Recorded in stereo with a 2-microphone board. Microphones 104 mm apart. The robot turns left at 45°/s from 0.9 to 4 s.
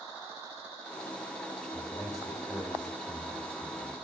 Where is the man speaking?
55° left, 5 m; by 4.0 s 45° right, 5 m.